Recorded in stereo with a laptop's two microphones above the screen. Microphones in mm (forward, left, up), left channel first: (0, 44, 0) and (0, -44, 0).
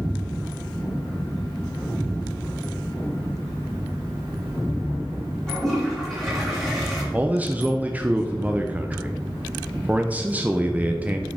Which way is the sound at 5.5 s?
Centre (ahead or behind).